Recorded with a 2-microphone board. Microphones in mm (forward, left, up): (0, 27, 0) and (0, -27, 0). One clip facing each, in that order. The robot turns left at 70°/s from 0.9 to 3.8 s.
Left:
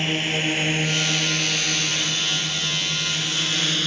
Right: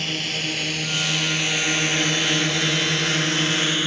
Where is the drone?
20° left (ahead or behind); by 3.9 s 20° right (ahead or behind).